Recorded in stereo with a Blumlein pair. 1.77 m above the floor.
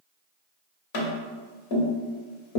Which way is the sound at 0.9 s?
50° left.